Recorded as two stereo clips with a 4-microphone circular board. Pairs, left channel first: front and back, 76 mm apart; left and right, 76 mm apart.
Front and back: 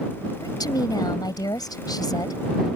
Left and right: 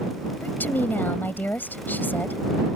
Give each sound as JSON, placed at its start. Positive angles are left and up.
{"t": 0.4, "sound": "a woman speaking", "azimuth_deg": 25}